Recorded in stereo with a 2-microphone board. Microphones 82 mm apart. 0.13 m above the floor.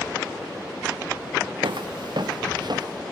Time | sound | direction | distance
1.6 | footsteps | 85° right | 0.5 m